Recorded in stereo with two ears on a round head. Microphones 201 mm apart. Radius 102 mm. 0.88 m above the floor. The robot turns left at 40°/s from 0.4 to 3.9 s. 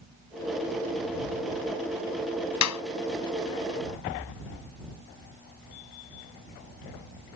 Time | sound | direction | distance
2.6 | a clap | 80° left | ?